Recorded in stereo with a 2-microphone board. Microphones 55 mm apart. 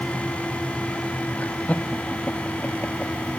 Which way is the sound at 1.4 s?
25° left (ahead or behind).